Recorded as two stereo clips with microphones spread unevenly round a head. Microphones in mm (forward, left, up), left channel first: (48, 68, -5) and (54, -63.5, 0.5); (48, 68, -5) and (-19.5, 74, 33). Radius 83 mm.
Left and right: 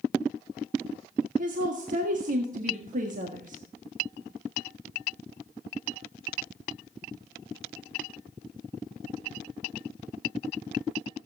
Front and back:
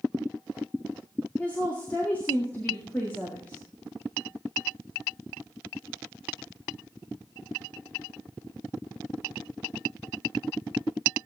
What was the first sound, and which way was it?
A woman speaking, 65° right.